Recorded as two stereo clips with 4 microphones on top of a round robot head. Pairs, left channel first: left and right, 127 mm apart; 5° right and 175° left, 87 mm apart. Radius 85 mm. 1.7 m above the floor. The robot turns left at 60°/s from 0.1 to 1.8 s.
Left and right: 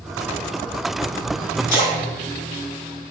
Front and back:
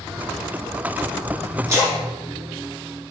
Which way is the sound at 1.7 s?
115° left.